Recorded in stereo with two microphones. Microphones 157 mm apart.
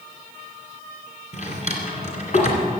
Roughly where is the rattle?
No rattle in this recording.